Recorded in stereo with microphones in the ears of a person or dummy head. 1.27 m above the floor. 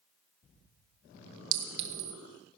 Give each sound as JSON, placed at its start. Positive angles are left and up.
{"t": 1.5, "sound": "a clink", "side_deg": -80, "distance_m": 1.1}